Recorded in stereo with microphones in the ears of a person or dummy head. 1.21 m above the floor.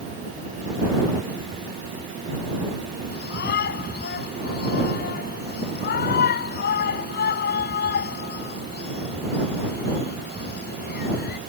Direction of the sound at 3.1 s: 50° left (ahead or behind).